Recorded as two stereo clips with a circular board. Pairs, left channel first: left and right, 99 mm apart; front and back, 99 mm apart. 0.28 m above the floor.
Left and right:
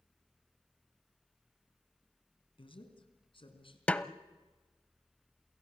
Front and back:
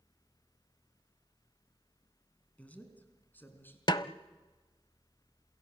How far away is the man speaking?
About 3.5 m.